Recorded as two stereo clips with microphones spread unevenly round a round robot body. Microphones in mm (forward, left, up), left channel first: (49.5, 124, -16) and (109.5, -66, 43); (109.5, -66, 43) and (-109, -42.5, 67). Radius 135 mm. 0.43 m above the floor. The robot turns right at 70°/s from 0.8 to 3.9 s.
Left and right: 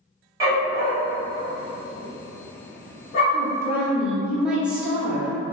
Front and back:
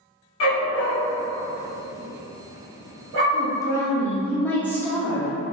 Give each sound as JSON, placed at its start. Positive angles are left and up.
{"t": 0.4, "sound": "a dog barking", "azimuth_deg": 5, "distance_m": 1.1}
{"t": 3.3, "sound": "a woman speaking", "azimuth_deg": 5, "distance_m": 0.8}